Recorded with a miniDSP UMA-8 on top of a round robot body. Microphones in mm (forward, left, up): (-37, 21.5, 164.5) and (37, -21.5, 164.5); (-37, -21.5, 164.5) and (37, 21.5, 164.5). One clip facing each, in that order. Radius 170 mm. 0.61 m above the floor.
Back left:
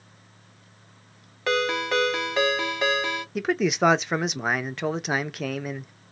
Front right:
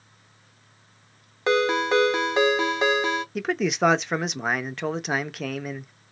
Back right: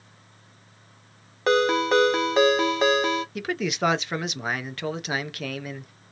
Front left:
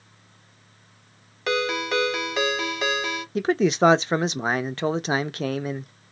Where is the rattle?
I don't hear a rattle.